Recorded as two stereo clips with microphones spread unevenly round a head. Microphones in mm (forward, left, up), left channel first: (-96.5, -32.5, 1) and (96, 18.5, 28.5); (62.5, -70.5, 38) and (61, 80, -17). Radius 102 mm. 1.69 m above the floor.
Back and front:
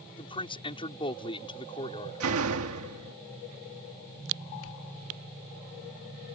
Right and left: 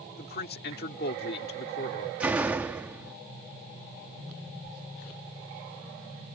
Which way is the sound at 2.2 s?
5° left.